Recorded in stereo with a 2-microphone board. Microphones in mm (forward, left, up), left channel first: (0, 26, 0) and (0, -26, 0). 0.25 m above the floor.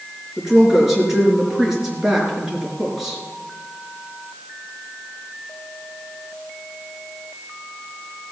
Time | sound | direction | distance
0.4 | a woman speaking | 10° right (ahead or behind) | 4.5 m